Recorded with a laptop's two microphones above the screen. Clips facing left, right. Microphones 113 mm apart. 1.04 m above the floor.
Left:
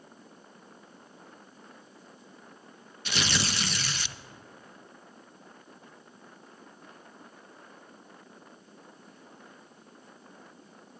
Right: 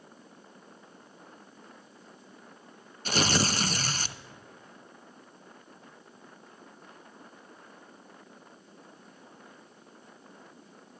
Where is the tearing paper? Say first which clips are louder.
Right 5 dB; 40° right (ahead or behind), 0.5 m.